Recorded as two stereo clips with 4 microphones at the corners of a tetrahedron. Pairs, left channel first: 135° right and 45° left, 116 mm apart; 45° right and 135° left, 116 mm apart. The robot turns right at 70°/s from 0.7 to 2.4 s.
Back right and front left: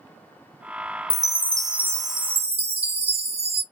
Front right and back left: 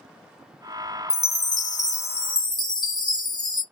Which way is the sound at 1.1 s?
80° right.